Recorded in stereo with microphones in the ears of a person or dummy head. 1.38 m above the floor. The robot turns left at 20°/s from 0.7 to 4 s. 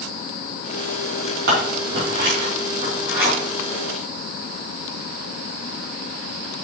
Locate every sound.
1.5 s scissors: 60° right (ahead or behind), 3.5 m; by 3.3 s 20° right (ahead or behind), 3.5 m